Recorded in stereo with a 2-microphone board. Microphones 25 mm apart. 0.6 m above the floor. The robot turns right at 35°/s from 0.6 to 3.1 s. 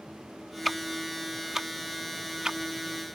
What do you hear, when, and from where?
0.7 s ticking: 5° left (ahead or behind); by 2.6 s 25° right (ahead or behind)